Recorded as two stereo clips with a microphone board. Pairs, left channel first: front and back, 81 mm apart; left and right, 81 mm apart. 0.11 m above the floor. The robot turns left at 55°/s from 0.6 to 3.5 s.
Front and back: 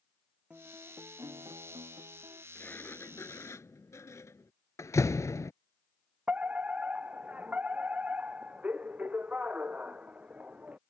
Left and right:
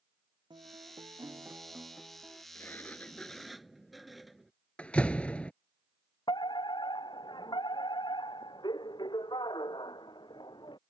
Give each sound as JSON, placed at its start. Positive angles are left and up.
{"t": 0.5, "sound": "a guitar", "azimuth_deg": -105}
{"t": 2.5, "sound": "a sliding door", "azimuth_deg": 50}
{"t": 4.8, "sound": "a door slam", "azimuth_deg": 20}
{"t": 6.3, "sound": "a fire alarm", "azimuth_deg": 105}